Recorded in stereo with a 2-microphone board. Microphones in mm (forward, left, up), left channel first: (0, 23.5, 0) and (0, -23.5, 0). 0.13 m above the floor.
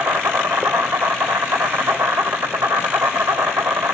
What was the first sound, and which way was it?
An insect, 70° right (ahead or behind).